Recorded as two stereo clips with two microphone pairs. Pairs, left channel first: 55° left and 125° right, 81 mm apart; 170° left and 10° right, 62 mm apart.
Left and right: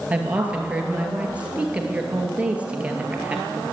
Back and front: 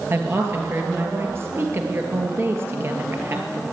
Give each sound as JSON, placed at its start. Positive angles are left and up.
{"t": 0.1, "sound": "a woman speaking", "azimuth_deg": -55, "distance_m": 2.0}